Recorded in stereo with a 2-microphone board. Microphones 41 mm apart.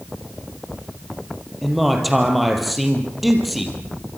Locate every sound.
1.6 s a man speaking: centre (ahead or behind), 4.5 m